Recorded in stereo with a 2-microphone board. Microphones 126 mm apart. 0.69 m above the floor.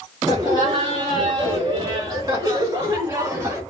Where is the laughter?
35° right (ahead or behind), 1.3 m; by 3.6 s 15° right (ahead or behind), 2 m.